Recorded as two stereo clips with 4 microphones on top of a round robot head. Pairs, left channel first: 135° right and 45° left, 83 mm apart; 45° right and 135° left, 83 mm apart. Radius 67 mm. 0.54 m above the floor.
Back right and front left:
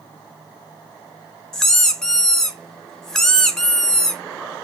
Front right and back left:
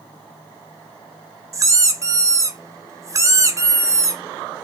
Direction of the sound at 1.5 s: 145° left.